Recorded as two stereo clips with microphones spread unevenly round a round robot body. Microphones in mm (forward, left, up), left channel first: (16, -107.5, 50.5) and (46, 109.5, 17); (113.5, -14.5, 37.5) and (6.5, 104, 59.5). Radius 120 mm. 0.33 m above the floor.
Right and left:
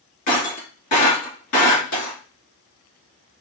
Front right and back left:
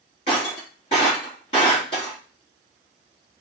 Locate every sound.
0.3 s breaking glass: 110° right, 2.5 m